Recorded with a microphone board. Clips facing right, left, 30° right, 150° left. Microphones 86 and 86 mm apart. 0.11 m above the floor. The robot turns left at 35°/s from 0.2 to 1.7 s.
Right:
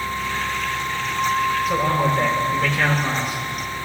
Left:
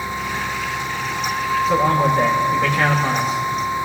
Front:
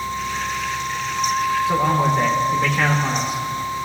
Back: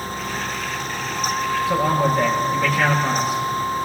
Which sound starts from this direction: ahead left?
A man speaking, at 1.7 s.